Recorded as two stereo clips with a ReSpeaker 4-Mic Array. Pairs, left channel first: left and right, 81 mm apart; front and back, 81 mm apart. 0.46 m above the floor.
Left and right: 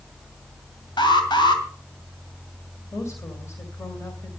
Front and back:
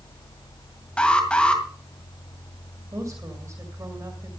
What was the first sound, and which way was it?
An alarm, 75° left.